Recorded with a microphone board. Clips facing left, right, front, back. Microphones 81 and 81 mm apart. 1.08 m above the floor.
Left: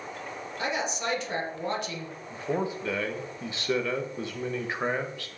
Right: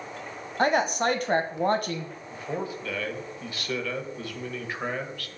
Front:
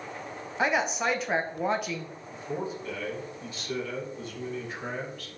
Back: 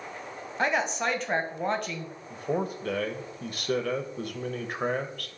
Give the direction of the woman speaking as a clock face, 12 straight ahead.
3 o'clock.